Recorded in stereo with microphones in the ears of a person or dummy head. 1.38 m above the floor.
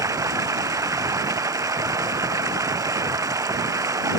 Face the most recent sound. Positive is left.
turn(degrees=-20)  # may be behind; listen again after turning